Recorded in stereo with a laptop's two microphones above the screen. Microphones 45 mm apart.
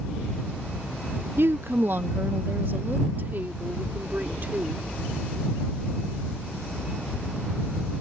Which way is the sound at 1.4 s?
60° right (ahead or behind).